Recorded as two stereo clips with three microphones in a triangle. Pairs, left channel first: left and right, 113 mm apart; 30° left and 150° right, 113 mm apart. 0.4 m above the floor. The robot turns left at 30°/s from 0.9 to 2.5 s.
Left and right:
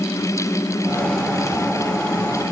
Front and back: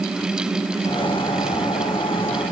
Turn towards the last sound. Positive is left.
No sound to turn to.